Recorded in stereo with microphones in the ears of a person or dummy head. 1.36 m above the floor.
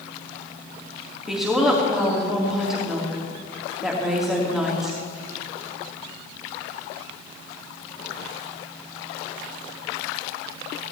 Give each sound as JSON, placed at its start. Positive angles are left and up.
{"t": 1.3, "sound": "a woman speaking", "side_deg": 0, "distance_m": 2.5}